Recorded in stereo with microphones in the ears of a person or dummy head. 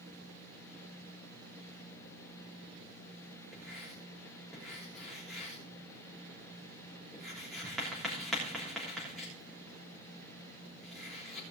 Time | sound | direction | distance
3.5 | writing | 5° right (ahead or behind) | 3.5 m